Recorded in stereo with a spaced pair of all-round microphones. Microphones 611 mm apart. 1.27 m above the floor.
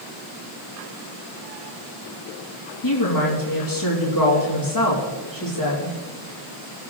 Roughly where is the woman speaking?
Left.